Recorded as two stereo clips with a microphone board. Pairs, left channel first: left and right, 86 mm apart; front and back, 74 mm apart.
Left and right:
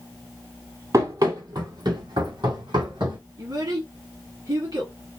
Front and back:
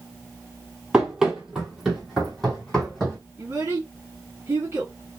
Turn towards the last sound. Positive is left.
turn(degrees=-125)